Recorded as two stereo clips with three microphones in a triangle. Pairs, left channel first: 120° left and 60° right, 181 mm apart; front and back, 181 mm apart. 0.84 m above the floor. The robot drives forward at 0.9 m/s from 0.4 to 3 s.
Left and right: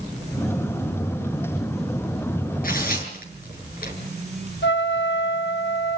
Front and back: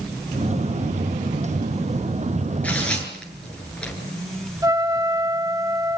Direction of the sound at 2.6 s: 80° left.